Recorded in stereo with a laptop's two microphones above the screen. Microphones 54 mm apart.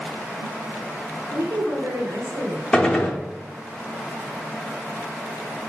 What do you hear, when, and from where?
1.3 s a woman speaking: 60° right (ahead or behind), 1.0 m; by 2.6 s 80° right, 1.2 m
2.7 s a gunshot: 10° left (ahead or behind), 0.5 m